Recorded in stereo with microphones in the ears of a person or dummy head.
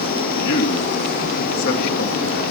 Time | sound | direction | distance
0.4 | a man speaking | 70° left (ahead or behind) | 2.5 m